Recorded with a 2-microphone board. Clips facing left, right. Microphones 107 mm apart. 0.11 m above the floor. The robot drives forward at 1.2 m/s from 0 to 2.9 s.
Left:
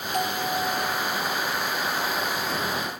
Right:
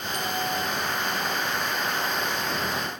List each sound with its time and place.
0.1 s a bell: 50° left (ahead or behind), 3 m; by 1.4 s 35° left (ahead or behind), 4 m